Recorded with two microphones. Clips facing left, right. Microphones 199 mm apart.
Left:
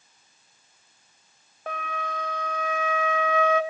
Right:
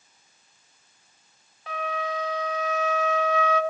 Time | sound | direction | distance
1.7 | a flute | 50° left (ahead or behind) | 0.9 m